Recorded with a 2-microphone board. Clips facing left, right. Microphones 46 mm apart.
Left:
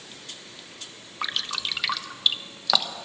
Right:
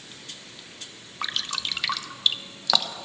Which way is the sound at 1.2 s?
Centre (ahead or behind).